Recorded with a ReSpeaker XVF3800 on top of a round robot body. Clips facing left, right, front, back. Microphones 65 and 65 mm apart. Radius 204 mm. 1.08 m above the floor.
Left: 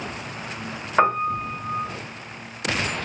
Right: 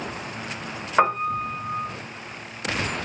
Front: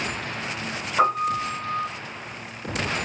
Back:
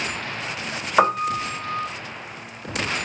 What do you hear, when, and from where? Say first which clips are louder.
1.0 s a piano: left 1 dB, back 2 dB; 175° right, 1.5 m